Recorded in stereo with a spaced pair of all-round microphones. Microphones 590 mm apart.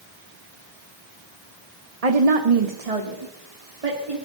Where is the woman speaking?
70° right (ahead or behind), 1.1 m; by 4.2 s 60° right (ahead or behind), 3 m.